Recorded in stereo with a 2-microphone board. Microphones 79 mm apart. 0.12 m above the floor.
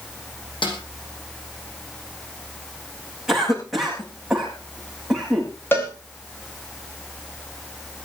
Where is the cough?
5° right (ahead or behind), 10 m.